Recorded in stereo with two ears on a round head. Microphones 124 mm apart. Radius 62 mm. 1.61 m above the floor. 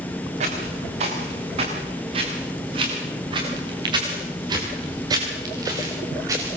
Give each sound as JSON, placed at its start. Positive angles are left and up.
{"t": 0.4, "sound": "footsteps", "side_deg": -50, "distance_m": 8.5}